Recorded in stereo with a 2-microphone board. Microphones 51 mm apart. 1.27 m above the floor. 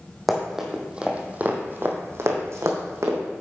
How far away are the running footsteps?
About 2.5 m.